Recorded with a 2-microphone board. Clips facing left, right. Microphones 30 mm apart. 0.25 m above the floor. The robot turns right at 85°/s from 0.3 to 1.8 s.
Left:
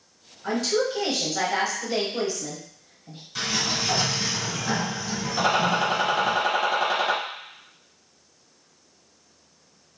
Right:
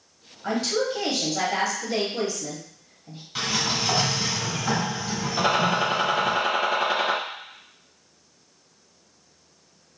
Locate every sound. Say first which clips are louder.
0.4 s a woman speaking: left 1 dB; 15° right (ahead or behind), 0.9 m; by 3.2 s 10° left (ahead or behind), 0.9 m
3.4 s a sliding door: right 1 dB; 25° right (ahead or behind), 1.5 m
5.4 s a gunshot: even; 10° right (ahead or behind), 0.8 m